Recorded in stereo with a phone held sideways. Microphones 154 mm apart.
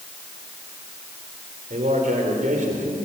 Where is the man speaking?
60° right (ahead or behind), 4.5 m.